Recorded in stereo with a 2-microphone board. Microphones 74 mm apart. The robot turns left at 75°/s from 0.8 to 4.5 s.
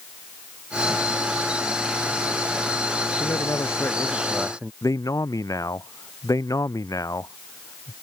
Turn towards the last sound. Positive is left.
turn(degrees=55)  # may be behind; listen again after turning